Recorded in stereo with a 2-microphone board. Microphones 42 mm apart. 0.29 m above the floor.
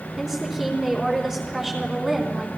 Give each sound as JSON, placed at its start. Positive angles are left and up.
{"t": 0.2, "sound": "a woman speaking", "side_deg": -15, "distance_m": 3.5}